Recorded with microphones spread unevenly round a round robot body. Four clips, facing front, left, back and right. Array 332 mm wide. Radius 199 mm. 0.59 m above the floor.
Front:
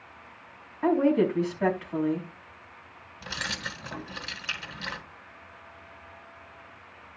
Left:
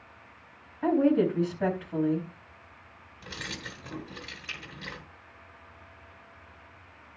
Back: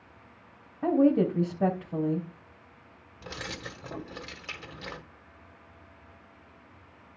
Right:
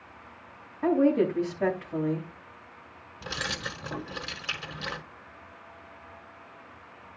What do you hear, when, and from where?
0.8 s a woman speaking: 175° right, 3.5 m
3.2 s keys jangling: 110° right, 1.6 m